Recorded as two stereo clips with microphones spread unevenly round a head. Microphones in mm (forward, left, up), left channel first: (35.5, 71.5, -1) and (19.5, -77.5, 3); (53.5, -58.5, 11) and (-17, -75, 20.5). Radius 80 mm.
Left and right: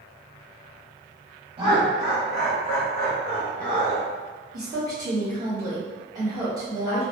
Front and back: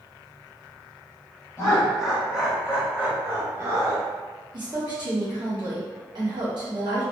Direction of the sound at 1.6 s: 50° right.